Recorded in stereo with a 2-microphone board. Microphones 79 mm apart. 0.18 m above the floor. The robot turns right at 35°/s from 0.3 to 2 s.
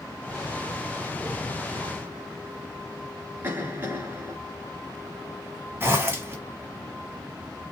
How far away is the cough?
About 2.5 m.